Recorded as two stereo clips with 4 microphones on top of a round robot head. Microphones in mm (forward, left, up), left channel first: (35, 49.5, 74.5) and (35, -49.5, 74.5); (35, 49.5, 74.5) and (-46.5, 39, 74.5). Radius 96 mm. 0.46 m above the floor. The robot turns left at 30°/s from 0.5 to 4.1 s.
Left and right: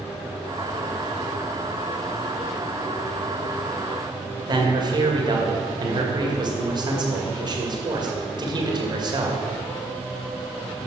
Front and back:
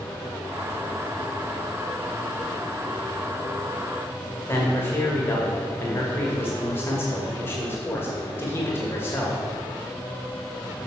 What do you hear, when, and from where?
4.5 s a man speaking: 50° right, 2.0 m